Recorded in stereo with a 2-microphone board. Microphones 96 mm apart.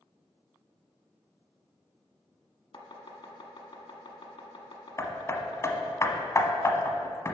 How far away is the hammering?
About 1.0 m.